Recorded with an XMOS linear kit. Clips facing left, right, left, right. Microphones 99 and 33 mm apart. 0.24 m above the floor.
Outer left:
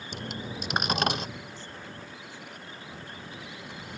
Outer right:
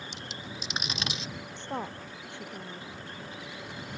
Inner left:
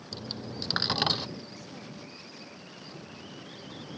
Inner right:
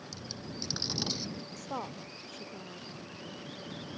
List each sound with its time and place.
0.1 s a dropped coin: 55° left (ahead or behind)
1.6 s a woman speaking: 70° right (ahead or behind)